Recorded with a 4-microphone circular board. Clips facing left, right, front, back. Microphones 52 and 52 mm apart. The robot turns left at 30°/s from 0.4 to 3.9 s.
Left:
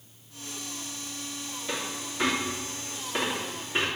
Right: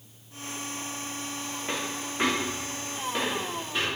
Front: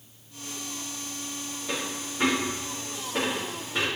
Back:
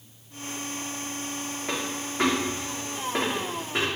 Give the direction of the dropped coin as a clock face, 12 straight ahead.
5 o'clock.